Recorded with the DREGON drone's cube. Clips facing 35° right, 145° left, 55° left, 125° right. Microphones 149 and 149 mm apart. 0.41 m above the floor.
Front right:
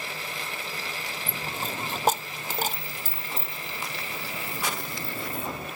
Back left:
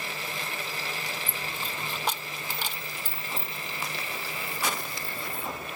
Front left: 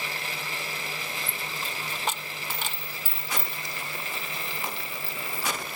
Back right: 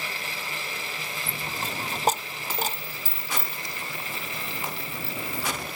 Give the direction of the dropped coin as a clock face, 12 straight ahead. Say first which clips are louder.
Front right 3 dB, back right 3 dB; 3 o'clock.